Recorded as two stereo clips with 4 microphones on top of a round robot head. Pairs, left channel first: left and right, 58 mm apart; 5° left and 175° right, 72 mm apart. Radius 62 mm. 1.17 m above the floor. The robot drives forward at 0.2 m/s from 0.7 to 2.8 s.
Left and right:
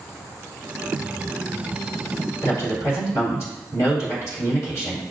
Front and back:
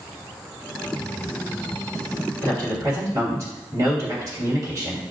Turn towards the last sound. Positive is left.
turn(degrees=145)